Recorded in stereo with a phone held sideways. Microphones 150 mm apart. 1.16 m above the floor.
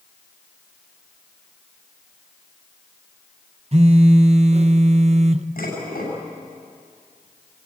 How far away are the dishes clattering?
About 6.5 m.